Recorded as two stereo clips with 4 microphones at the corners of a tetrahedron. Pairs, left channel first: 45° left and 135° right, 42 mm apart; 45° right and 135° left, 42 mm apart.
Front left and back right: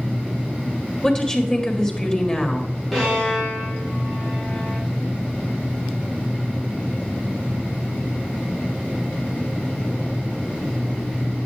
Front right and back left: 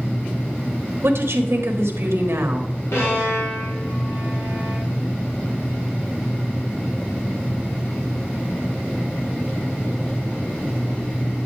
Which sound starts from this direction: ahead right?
A violin, at 2.9 s.